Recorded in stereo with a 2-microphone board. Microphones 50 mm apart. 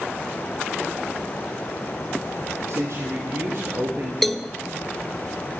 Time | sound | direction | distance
2.7 | a man speaking | 60° right (ahead or behind) | 3.5 m
4.2 | a cowbell | 5° left (ahead or behind) | 0.5 m